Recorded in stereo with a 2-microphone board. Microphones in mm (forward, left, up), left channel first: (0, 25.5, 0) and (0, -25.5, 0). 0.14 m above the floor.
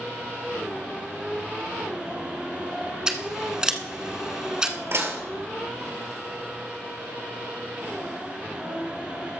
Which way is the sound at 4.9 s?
55° right (ahead or behind).